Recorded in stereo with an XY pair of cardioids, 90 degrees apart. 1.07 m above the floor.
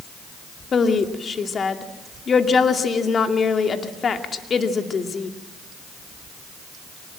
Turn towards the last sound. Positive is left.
turn(degrees=50)